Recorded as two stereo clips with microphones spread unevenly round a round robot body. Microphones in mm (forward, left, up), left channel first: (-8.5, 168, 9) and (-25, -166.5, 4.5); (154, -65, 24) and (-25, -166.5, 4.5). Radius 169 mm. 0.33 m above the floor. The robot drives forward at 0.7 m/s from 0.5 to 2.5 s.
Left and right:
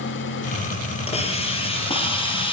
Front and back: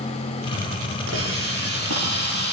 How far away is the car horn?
No car horn in this recording.